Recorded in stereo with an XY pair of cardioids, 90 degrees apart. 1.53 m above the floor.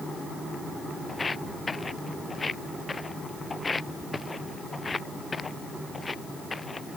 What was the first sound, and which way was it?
Footsteps, 30° left.